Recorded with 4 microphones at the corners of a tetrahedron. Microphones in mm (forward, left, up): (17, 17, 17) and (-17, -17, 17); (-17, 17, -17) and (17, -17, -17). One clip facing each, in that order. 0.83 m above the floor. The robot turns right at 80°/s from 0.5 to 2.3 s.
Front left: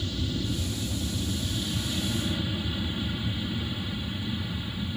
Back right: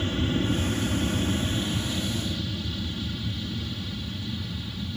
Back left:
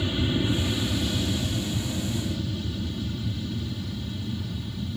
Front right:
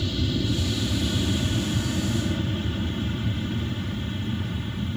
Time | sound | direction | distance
0.0 | an aircraft | 165° right | ?